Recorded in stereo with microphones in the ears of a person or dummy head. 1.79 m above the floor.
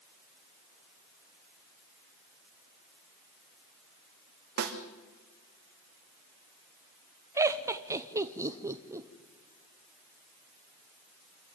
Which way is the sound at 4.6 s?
50° right (ahead or behind).